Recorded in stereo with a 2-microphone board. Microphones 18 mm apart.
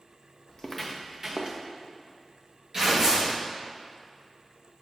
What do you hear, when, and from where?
0.5 s footsteps: 30° left (ahead or behind), 1.0 m; by 1.6 s 55° right (ahead or behind), 1.4 m
2.7 s tearing paper: 35° right (ahead or behind), 2.5 m